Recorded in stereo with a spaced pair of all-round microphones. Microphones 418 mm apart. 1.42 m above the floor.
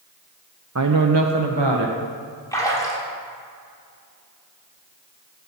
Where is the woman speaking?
35° right (ahead or behind), 0.7 m; by 2.0 s 70° right (ahead or behind), 1.7 m.